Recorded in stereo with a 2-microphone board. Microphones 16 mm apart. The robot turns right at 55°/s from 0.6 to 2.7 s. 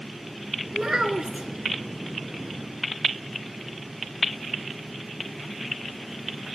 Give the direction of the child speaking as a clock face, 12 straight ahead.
5 o'clock.